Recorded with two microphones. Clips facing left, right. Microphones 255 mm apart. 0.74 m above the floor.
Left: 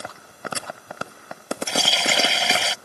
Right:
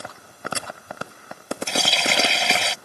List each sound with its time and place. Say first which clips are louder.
1.7 s a running tap: right 1 dB; centre (ahead or behind)